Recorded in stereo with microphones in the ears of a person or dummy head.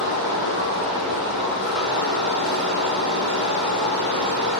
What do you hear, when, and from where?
0.0 s running water: 25° right (ahead or behind), 7 m